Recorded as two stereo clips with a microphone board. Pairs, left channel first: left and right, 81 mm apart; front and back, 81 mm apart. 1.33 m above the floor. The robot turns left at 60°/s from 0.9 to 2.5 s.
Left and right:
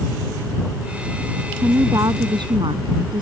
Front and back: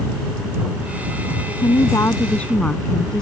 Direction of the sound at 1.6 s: 25° right.